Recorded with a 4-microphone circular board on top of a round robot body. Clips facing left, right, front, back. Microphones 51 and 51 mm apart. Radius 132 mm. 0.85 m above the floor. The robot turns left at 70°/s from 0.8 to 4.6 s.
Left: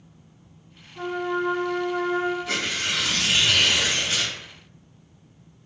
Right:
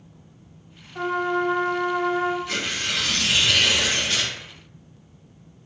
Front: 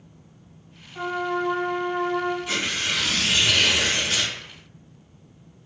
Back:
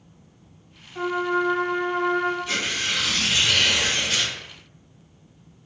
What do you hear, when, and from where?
0.9 s a trumpet: 85° right, 0.7 m; by 2.4 s 175° left, 0.7 m
2.5 s tearing paper: 75° left, 0.7 m; by 4.3 s 55° right, 0.7 m